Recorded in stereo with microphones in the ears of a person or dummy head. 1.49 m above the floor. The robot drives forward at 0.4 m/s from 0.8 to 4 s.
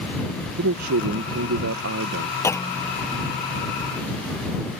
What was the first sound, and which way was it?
A man speaking, 85° right.